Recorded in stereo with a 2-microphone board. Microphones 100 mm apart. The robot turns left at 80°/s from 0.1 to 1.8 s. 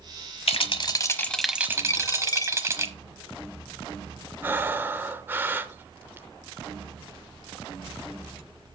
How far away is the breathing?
About 0.6 m.